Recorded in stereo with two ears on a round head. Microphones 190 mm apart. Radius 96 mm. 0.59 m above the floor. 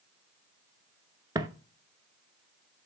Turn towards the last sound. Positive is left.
turn(degrees=-20)  # may be behind; listen again after turning